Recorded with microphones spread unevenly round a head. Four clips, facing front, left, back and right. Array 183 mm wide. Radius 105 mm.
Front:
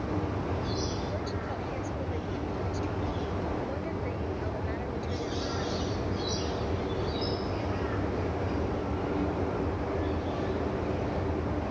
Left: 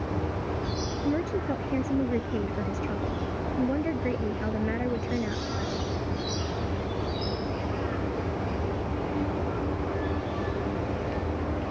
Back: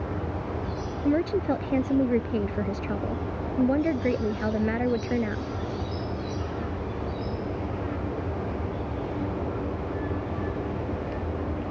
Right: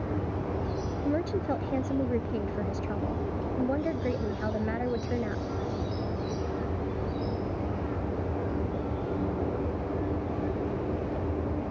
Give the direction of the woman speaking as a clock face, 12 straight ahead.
6 o'clock.